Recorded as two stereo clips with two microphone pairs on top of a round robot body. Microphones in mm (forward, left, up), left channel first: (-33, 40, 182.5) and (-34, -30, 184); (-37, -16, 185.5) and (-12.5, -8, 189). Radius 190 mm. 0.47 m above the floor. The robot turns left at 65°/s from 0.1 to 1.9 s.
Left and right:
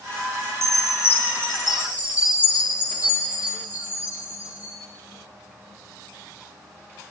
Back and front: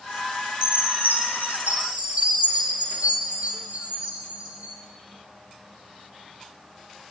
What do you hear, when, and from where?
0.6 s a chime: 65° left, 10 m; by 4.8 s 20° right, 10 m